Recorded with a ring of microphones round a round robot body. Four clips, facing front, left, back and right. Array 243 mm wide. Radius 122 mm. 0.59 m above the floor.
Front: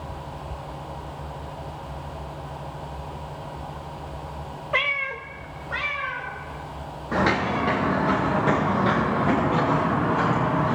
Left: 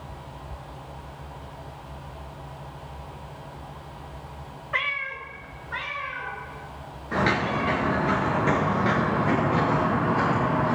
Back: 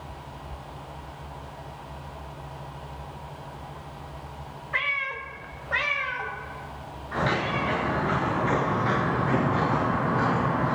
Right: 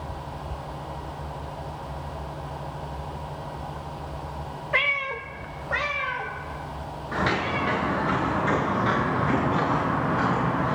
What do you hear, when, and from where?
4.7 s a cat meowing: 35° right, 1.1 m; by 7.8 s 140° right, 4 m
7.1 s footsteps: 20° left, 5.5 m; by 10.8 s 40° left, 6.5 m